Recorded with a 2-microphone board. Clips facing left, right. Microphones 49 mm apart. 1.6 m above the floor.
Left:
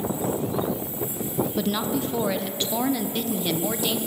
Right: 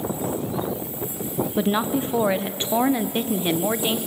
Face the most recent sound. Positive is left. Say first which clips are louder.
# right 7 dB
turn(degrees=-25)  # may be behind; listen again after turning